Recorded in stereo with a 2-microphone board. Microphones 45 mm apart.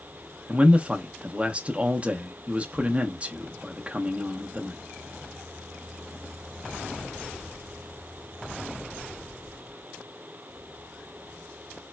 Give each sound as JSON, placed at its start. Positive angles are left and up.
{"t": 0.5, "sound": "a man speaking", "side_deg": -30, "distance_m": 0.6}